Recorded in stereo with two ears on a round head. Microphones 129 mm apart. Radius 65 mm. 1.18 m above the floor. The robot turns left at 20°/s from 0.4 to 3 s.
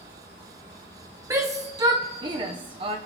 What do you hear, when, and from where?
0.0 s an insect: 80° right, 5.5 m; by 3.1 s 130° right, 5.5 m
1.3 s a shout: 20° right (ahead or behind), 0.7 m; by 3.0 s 35° right (ahead or behind), 0.7 m